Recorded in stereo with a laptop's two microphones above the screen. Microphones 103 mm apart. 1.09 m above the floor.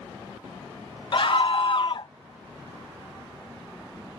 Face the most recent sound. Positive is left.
turn(degrees=55)  # may be behind; listen again after turning